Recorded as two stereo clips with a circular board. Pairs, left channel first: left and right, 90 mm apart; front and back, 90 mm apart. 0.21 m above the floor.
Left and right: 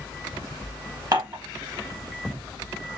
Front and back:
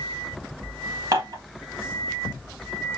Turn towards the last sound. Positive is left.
turn(degrees=-135)